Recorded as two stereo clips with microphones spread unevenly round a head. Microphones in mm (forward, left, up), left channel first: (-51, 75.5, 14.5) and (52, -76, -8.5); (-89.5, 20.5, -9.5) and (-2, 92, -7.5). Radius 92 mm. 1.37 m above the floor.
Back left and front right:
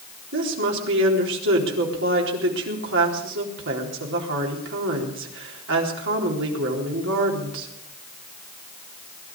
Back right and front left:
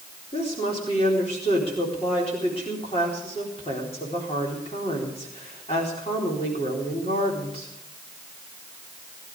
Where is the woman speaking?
80° right, 4 m.